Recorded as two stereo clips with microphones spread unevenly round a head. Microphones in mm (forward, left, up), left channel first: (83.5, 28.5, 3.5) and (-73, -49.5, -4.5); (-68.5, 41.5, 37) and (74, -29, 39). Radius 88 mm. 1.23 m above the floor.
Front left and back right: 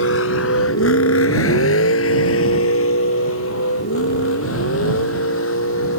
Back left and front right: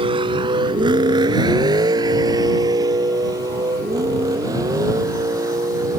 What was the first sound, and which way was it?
A vehicle, 30° left.